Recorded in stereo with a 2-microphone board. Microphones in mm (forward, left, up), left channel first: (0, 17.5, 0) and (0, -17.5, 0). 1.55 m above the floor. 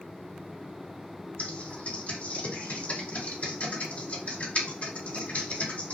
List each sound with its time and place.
1.4 s typing on a keyboard: 50° left (ahead or behind), 1.9 m